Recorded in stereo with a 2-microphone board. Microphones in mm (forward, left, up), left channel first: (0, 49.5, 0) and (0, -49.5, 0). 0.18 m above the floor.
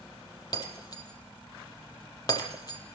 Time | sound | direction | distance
0.5 | breaking glass | 40° left (ahead or behind) | 4 m